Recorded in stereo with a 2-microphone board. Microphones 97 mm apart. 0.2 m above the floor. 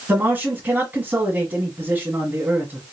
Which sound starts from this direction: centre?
A man speaking, at 0.1 s.